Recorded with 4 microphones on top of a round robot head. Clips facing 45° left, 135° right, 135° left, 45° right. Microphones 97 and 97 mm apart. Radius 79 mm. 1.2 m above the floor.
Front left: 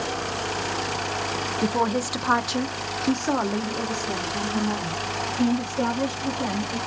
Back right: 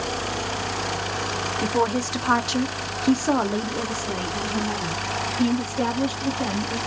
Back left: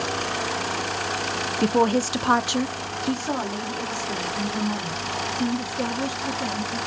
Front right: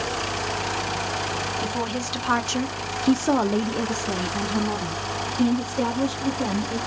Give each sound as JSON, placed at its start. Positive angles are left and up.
{"t": 1.6, "sound": "a woman speaking", "azimuth_deg": 125, "distance_m": 0.7}